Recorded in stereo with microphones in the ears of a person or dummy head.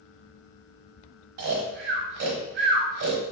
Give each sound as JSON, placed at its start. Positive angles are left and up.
{"t": 1.4, "sound": "snoring", "side_deg": -55, "distance_m": 0.9}